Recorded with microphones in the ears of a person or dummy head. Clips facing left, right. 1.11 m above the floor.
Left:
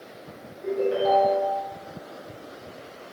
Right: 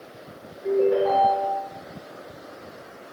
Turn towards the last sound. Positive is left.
turn(degrees=50)  # may be behind; listen again after turning